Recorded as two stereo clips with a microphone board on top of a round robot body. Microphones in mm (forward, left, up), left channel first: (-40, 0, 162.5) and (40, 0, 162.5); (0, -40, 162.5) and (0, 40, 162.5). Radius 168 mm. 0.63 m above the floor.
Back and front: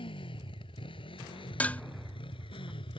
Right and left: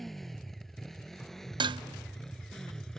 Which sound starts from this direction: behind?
A motorcycle, at 0.0 s.